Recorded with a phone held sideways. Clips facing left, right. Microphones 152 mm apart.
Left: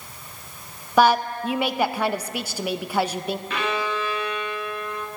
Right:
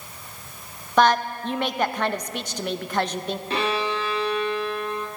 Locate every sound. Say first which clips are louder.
1.0 s a woman speaking: left 1 dB; 10° left (ahead or behind), 0.6 m
3.5 s a violin: right 3 dB; 35° right (ahead or behind), 1.4 m